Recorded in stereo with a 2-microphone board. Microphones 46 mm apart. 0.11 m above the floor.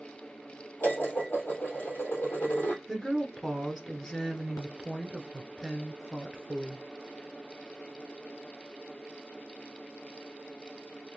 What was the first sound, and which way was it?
Dishes clattering, 50° left (ahead or behind).